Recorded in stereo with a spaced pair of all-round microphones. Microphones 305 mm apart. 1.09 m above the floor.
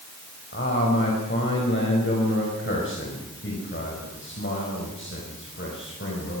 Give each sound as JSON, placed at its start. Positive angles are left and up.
{"t": 0.5, "sound": "a man speaking", "side_deg": 40, "distance_m": 5.0}